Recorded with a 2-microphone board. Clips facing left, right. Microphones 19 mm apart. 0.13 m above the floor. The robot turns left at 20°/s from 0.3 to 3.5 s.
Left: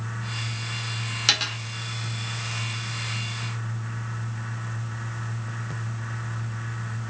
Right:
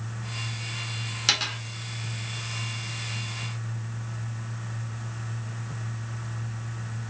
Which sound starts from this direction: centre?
A dropped coin, at 1.3 s.